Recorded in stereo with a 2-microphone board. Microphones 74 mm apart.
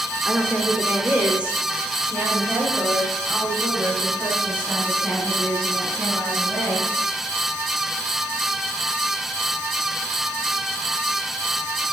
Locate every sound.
0.2 s a woman speaking: 15° right (ahead or behind), 1.0 m